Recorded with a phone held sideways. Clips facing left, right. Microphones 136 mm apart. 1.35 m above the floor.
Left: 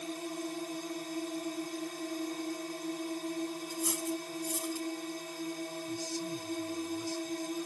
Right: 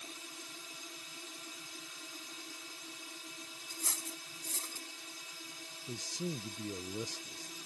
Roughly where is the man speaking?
Right.